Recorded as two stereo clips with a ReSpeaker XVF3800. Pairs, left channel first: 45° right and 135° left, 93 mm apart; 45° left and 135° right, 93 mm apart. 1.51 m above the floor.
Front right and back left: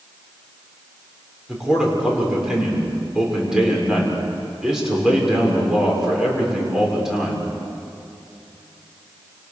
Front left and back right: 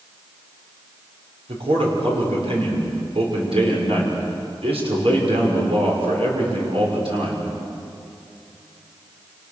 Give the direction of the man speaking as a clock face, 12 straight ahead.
5 o'clock.